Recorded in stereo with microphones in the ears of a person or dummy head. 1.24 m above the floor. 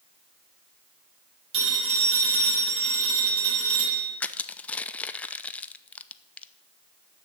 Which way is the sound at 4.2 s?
10° left (ahead or behind).